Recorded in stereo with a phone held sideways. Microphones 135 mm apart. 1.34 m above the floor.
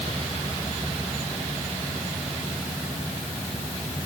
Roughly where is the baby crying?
No baby crying in this recording.